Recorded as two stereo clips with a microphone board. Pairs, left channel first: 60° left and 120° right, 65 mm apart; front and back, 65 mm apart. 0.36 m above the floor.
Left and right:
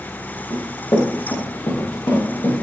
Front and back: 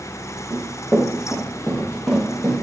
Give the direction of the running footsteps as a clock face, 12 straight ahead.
10 o'clock.